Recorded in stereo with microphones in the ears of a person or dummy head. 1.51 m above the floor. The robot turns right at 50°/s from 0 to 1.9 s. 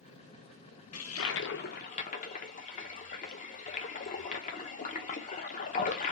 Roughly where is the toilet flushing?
Left.